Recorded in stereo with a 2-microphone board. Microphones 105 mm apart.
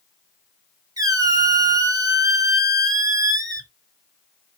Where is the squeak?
35° right (ahead or behind), 0.6 m.